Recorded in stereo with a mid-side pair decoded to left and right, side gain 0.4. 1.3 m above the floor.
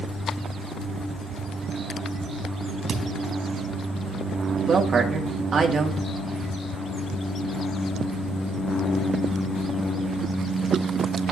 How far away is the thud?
About 4 m.